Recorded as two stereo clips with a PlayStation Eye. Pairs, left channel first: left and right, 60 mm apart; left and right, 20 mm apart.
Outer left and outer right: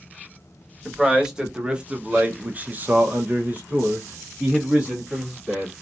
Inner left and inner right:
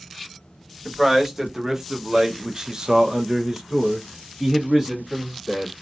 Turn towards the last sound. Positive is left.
turn(degrees=-15)  # may be behind; listen again after turning